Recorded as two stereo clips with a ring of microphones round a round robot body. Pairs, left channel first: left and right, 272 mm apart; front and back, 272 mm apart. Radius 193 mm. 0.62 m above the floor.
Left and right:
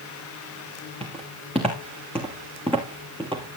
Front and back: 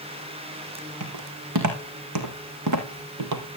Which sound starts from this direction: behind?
Footsteps, at 1.0 s.